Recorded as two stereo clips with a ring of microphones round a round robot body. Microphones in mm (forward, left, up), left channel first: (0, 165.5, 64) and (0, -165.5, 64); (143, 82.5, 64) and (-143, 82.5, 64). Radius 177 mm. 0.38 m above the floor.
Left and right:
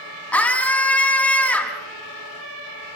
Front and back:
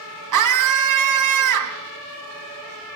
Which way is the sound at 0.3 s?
175° left.